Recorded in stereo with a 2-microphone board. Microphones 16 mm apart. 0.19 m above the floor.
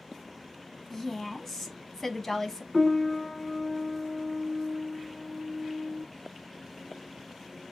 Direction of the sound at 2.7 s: 15° left (ahead or behind).